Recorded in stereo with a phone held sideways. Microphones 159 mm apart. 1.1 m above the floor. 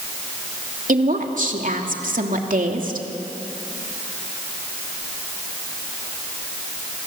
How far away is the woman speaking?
About 2.5 m.